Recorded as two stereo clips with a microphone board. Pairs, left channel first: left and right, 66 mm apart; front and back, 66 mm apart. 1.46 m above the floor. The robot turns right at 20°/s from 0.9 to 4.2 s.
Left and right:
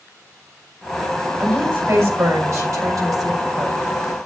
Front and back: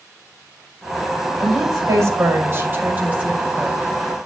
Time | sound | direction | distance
1.4 | a woman speaking | 150° right | 5.5 m